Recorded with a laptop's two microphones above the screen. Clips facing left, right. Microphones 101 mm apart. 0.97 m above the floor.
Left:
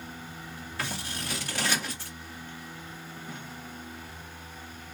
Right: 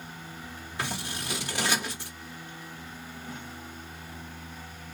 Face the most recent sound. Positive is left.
turn(degrees=-20)  # may be behind; listen again after turning